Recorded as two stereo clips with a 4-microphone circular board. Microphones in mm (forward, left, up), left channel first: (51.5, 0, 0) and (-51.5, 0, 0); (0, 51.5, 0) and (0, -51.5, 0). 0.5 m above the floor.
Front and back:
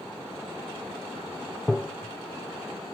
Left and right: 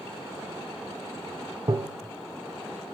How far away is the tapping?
About 0.9 m.